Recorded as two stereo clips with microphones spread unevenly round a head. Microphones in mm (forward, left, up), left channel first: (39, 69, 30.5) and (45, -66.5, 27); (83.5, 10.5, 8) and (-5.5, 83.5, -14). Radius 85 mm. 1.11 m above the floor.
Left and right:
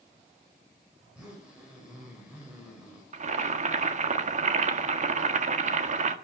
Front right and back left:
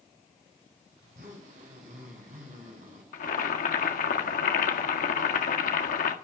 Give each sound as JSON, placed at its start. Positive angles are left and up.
{"t": 1.0, "sound": "a zipper", "azimuth_deg": -170, "distance_m": 5.5}
{"t": 3.1, "sound": "boiling", "azimuth_deg": -55, "distance_m": 1.6}